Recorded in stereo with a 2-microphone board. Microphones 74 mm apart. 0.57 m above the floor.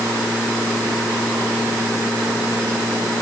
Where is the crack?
No crack in this recording.